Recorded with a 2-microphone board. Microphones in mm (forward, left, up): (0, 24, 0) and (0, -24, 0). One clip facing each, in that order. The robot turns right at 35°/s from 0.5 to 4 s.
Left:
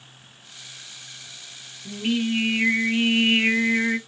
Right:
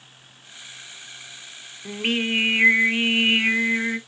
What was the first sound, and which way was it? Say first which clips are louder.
Singing: even; 60° right.